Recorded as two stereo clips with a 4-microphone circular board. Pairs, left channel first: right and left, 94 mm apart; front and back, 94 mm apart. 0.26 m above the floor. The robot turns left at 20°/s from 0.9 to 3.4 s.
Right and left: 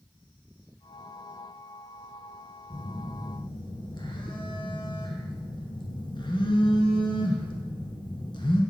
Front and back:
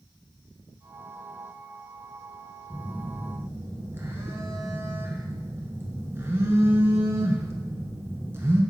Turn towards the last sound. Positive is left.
turn(degrees=-120)